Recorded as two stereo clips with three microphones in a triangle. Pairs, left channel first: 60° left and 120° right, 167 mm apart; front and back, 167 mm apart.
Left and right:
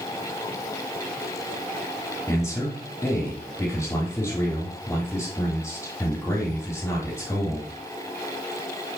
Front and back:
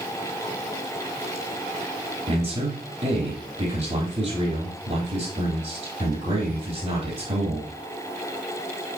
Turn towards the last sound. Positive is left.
turn(degrees=130)